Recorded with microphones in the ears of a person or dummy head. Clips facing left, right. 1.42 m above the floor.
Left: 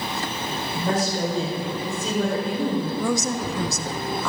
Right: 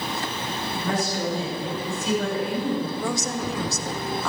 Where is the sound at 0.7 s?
35° left (ahead or behind), 5.5 m.